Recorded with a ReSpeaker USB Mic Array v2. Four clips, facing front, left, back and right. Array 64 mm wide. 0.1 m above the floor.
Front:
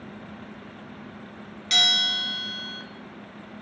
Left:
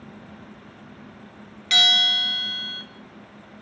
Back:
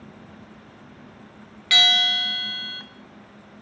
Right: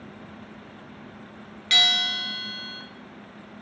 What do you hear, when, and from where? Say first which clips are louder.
1.7 s a bell: left 3 dB, back 5 dB; 170° right, 0.6 m